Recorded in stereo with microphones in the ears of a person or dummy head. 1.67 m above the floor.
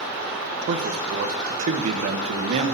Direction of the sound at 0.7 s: 40° right (ahead or behind).